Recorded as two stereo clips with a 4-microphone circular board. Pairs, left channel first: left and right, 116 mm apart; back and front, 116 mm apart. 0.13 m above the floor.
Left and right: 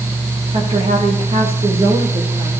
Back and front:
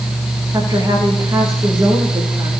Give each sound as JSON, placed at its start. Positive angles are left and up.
{"t": 0.5, "sound": "a woman speaking", "azimuth_deg": -60, "distance_m": 9.5}